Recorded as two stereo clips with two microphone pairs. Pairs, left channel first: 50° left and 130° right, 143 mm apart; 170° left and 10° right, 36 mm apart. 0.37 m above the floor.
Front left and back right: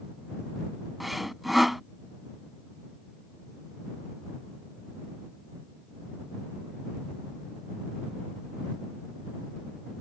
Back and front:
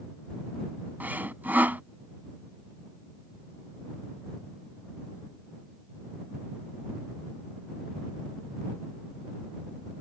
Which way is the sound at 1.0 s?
40° right.